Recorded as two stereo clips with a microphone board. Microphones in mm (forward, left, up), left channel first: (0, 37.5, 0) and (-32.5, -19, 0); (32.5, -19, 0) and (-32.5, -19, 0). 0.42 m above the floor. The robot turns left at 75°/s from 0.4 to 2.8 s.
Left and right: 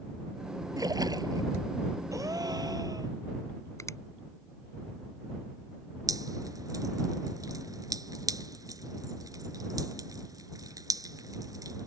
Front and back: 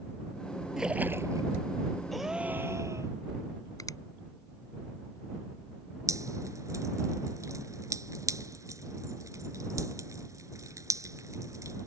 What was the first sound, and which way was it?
A splash, 100° right.